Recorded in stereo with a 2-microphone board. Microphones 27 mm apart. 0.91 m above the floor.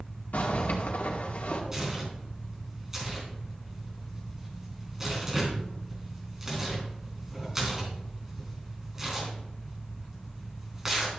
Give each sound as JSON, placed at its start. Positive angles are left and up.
{"t": 0.3, "sound": "a zipper", "side_deg": 75, "distance_m": 2.0}
{"t": 1.7, "sound": "tearing paper", "side_deg": -15, "distance_m": 3.5}